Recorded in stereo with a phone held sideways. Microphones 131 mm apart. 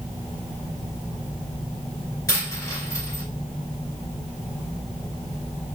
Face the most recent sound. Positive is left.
turn(degrees=25)  # may be behind; listen again after turning